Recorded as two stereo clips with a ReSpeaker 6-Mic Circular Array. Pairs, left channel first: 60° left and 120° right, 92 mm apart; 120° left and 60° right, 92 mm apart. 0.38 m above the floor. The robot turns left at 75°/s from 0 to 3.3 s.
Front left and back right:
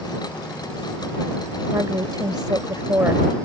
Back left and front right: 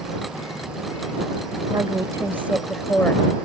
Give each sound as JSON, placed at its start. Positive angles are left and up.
{"t": 1.7, "sound": "a woman speaking", "azimuth_deg": -70}